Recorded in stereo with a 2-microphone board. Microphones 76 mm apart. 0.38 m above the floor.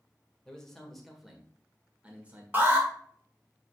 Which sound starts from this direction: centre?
A man speaking, at 0.5 s.